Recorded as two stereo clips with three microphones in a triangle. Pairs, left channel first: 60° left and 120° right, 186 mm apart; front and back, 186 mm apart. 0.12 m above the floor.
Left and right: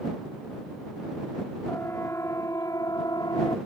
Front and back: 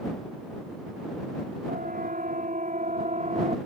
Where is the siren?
140° left; by 3.6 s 130° left.